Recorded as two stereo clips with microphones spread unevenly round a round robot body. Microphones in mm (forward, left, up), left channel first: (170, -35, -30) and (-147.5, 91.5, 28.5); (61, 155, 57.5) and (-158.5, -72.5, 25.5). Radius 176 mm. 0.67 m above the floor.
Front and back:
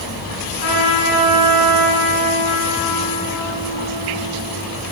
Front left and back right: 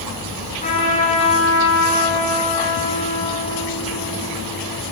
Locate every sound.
0.6 s a trumpet: 25° right, 8 m